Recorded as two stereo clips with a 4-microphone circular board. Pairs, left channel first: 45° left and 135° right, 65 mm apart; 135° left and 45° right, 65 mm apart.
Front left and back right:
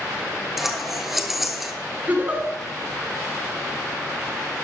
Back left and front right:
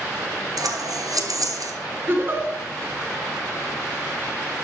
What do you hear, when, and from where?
0.6 s scissors: 50° right, 1.1 m
2.1 s a giggle: 80° right, 2.5 m